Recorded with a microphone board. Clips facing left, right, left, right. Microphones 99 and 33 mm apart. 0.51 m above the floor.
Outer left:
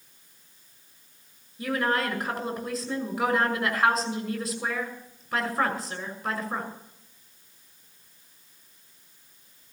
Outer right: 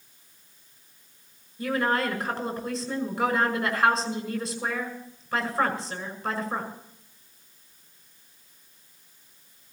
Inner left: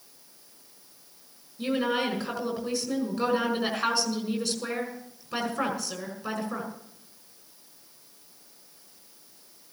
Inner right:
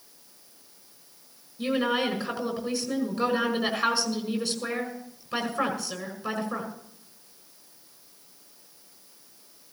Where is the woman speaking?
Centre (ahead or behind), 6.5 m.